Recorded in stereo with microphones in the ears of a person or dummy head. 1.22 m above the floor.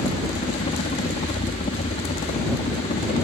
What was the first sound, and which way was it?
A helicopter, 30° left (ahead or behind).